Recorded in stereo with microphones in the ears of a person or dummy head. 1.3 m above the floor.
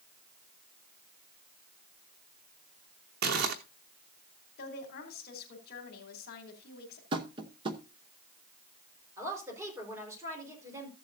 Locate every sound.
3.2 s crumpling: 50° right (ahead or behind), 1.1 m
4.6 s a woman speaking: 60° left (ahead or behind), 3 m
7.1 s tapping: 30° right (ahead or behind), 0.8 m
9.2 s a woman speaking: 20° right (ahead or behind), 4 m